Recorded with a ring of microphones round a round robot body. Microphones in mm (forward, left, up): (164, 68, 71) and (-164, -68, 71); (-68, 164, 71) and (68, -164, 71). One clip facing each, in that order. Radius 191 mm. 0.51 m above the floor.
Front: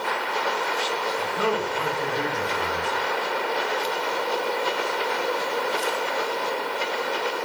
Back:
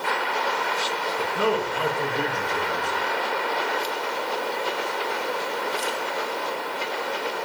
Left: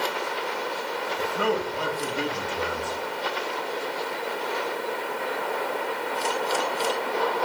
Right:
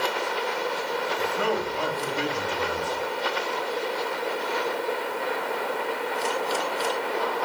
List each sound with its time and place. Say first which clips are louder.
1.2 s a man speaking: back 3 dB, left 3 dB; 155° left, 7.5 m